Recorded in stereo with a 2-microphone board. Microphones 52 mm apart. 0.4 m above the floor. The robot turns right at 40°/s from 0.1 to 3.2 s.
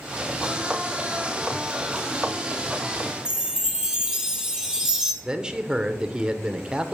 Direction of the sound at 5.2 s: 15° right (ahead or behind).